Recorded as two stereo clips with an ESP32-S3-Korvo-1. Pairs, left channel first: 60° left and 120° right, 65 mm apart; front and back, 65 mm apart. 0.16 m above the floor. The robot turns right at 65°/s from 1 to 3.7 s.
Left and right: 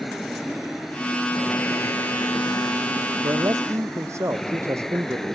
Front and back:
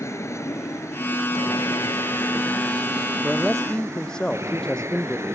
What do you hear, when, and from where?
0.0 s an aircraft: 30° right; by 5.3 s 145° left
3.2 s a man speaking: 110° right; by 5.3 s 80° right